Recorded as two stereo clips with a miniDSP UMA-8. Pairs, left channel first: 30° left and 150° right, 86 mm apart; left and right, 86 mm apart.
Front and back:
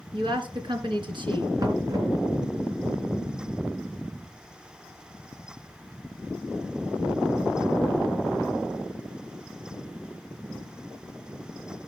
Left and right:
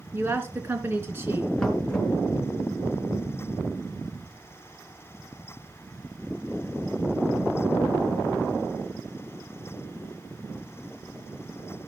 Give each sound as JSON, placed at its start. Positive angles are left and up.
{"t": 0.1, "sound": "a woman speaking", "azimuth_deg": -155, "distance_m": 3.0}
{"t": 1.6, "sound": "knocking", "azimuth_deg": 170, "distance_m": 3.5}